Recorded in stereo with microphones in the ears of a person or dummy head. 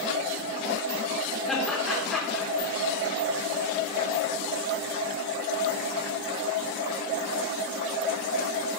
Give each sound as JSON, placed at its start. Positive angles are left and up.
{"t": 1.5, "sound": "laughter", "side_deg": 0, "distance_m": 3.5}